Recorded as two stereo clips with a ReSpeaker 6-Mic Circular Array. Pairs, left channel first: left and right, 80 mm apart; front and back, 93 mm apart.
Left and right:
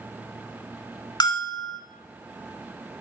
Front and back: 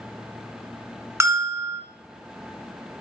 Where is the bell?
120° left, 1.1 m.